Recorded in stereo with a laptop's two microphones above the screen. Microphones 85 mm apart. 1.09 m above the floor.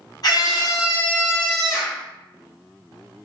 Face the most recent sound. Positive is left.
turn(degrees=-15)  # may be behind; listen again after turning